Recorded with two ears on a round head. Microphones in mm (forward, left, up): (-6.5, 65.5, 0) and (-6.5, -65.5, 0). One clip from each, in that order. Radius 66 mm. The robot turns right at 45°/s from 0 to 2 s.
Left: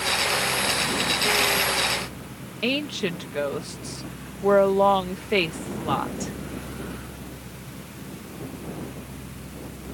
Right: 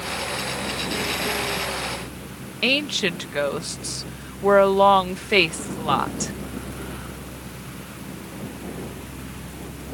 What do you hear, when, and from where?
2.6 s a woman speaking: 40° right (ahead or behind)